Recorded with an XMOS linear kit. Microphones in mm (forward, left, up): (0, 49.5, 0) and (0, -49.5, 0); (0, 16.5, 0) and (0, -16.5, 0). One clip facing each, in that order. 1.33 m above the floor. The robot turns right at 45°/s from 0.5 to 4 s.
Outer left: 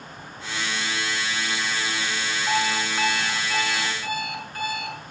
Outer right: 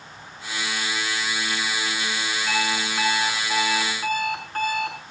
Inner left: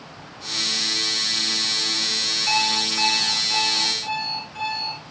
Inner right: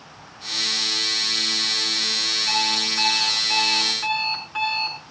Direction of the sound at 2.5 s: 155° left.